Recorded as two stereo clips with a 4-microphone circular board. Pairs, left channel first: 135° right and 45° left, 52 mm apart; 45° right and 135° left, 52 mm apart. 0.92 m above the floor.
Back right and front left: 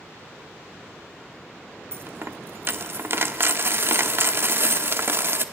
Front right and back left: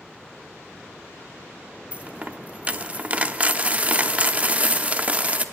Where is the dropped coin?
75° left, 0.7 m.